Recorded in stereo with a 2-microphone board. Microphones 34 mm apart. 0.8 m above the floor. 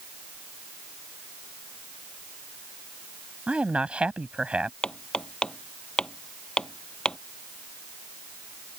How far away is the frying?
I don't hear frying.